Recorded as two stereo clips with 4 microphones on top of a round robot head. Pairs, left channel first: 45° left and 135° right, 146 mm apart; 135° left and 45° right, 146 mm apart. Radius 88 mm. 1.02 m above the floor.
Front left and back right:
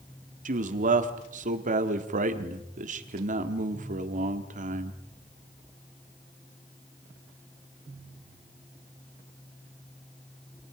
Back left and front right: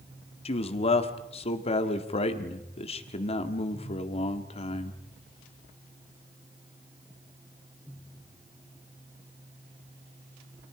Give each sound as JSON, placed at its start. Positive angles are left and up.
{"t": 0.5, "sound": "a man speaking", "azimuth_deg": -175, "distance_m": 2.0}